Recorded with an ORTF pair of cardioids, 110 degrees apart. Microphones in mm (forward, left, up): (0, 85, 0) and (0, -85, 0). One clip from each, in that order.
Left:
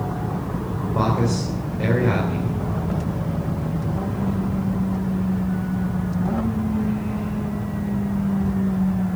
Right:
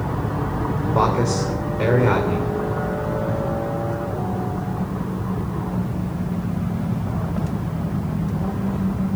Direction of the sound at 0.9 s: 40° right.